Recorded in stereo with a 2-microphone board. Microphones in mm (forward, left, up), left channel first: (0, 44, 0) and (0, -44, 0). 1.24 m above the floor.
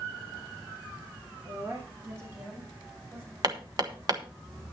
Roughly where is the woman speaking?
Right.